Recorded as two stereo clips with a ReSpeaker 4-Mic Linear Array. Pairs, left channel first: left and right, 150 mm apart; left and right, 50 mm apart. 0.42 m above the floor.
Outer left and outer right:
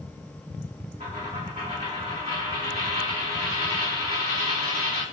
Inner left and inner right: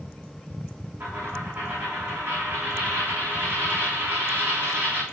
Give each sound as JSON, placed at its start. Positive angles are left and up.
{"t": 1.0, "sound": "a dropped coin", "side_deg": -40, "distance_m": 4.0}